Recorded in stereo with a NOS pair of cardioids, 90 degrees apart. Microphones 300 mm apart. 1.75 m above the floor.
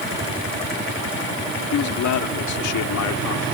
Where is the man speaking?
65° left; by 3.5 s 80° left.